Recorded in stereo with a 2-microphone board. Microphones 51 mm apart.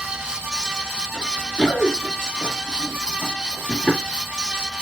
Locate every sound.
1.1 s running footsteps: 15° right (ahead or behind), 1.0 m; by 4.0 s 20° left (ahead or behind), 1.6 m